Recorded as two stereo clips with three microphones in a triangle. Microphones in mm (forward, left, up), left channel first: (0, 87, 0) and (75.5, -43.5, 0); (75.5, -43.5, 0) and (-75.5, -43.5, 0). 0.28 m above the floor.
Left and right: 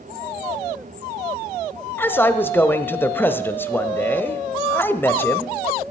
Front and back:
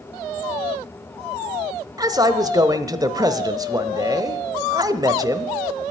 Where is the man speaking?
175° left, 0.9 m.